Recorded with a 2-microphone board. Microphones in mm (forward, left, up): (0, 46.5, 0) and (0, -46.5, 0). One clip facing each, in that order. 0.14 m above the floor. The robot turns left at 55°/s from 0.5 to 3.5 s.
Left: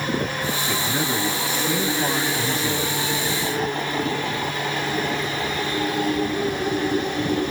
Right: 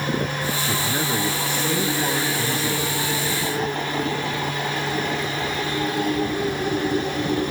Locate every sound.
0.7 s a man speaking: 15° right (ahead or behind), 1.2 m; by 3.0 s 25° left (ahead or behind), 1.2 m